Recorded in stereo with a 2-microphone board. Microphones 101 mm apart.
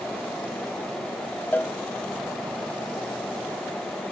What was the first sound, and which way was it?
A cowbell, 20° left (ahead or behind).